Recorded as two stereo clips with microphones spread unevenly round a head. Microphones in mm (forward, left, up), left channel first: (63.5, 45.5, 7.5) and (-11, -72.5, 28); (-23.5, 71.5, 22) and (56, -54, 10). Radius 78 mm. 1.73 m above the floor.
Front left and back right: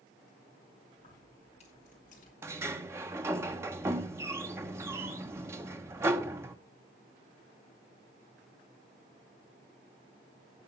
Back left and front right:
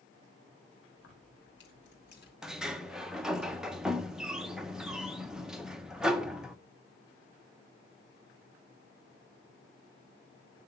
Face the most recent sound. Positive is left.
turn(degrees=-150)